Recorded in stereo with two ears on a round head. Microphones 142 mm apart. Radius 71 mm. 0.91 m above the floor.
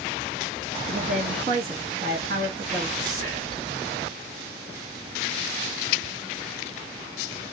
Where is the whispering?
50° right (ahead or behind), 1.6 m.